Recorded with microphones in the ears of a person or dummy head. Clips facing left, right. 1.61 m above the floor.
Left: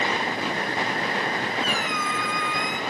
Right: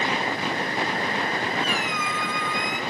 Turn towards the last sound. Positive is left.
turn(degrees=35)  # may be behind; listen again after turning